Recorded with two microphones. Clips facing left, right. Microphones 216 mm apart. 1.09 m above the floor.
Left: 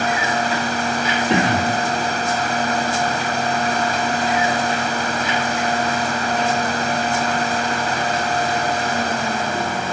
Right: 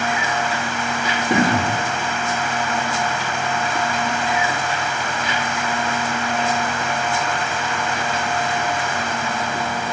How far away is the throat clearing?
About 5.5 m.